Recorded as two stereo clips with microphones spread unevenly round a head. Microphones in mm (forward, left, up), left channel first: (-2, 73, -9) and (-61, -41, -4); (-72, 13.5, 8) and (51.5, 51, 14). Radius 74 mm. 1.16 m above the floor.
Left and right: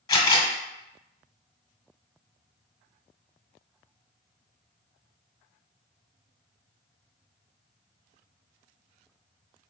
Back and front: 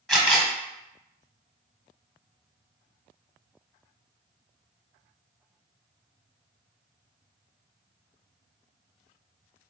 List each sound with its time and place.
0.1 s a camera shutter: 110° left, 1.4 m